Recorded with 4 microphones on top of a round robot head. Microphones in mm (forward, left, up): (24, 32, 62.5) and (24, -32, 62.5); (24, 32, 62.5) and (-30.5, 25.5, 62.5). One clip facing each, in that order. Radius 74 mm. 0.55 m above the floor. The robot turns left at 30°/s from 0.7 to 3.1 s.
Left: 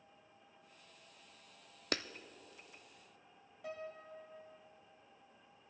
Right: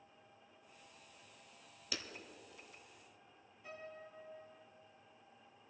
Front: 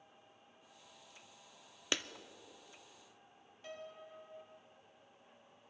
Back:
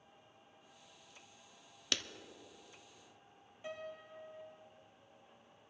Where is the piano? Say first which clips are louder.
Left 5 dB, back 3 dB; 110° left, 1.8 m.